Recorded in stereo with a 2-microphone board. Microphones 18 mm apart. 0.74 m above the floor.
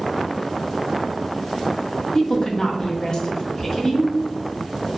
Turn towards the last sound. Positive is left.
turn(degrees=35)  # may be behind; listen again after turning